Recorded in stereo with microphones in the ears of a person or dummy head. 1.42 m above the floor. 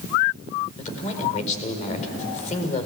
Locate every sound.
0.8 s a man speaking: 35° left (ahead or behind), 4.5 m